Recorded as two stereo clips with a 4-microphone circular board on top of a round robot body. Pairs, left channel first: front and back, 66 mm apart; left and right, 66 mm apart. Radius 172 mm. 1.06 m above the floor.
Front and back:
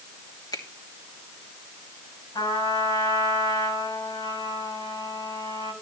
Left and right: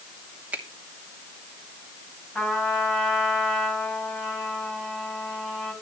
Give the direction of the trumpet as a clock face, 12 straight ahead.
12 o'clock.